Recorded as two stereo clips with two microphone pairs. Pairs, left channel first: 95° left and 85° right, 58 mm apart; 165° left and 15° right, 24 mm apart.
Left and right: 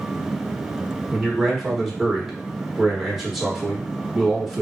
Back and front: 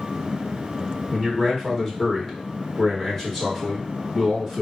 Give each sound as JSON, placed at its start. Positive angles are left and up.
{"t": 1.1, "sound": "a man speaking", "azimuth_deg": -170, "distance_m": 1.0}